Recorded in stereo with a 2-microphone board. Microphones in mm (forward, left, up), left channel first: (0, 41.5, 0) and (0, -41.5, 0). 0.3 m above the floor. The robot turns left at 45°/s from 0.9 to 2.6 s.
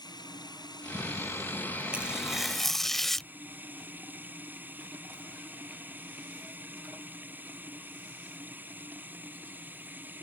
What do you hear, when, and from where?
0.0 s running water: 55° left; by 10.2 s 20° right
1.9 s tearing paper: 155° right; by 3.3 s 175° left